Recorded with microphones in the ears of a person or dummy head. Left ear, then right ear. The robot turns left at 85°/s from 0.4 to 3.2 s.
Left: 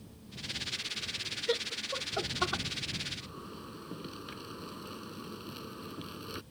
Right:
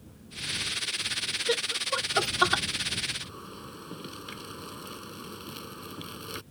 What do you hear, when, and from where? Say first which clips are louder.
1.5 s laughter: right 4 dB; 5° right (ahead or behind); by 2.6 s 60° right (ahead or behind)
3.2 s a zipper: right 4 dB; 10° right (ahead or behind)